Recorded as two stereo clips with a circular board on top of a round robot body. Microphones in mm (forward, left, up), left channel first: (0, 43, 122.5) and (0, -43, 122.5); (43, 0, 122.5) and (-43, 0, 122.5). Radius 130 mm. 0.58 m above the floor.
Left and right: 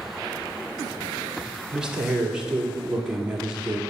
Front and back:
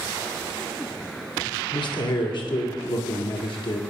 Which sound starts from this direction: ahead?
A man speaking, at 1.7 s.